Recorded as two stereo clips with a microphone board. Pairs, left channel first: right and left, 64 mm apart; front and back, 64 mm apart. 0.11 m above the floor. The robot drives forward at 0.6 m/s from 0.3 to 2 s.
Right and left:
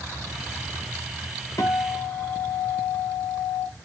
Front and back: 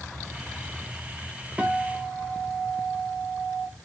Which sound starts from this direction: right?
A guitar, at 1.6 s.